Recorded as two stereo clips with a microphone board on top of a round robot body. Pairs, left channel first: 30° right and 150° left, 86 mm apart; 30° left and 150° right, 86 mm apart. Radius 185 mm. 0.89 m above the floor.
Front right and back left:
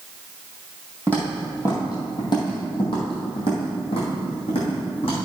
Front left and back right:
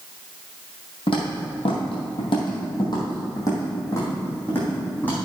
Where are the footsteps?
45° left, 1.9 m; by 5.2 s 45° right, 3 m.